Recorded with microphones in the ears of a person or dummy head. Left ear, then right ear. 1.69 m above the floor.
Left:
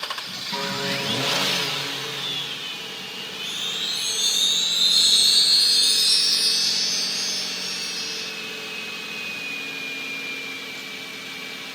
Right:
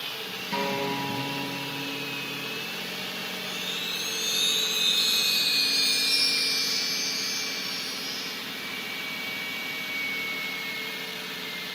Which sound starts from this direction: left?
A chime, at 3.4 s.